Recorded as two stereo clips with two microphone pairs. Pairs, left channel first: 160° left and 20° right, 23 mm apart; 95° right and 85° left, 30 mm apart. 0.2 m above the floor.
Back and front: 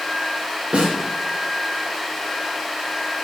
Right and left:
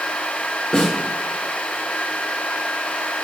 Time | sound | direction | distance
0.7 | a snare drum | 35° right | 3 m